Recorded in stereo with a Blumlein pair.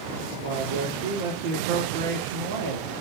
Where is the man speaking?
55° right, 2.5 m.